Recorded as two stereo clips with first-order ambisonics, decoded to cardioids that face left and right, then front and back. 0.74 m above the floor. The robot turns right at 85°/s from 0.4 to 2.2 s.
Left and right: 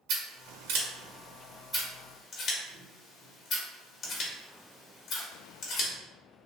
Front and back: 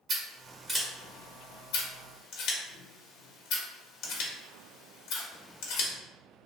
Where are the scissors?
120° right, 0.8 m; by 5.9 s 35° left, 0.8 m.